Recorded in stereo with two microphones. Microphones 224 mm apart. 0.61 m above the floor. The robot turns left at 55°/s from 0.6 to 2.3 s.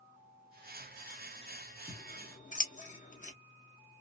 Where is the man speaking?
I don't hear a man speaking.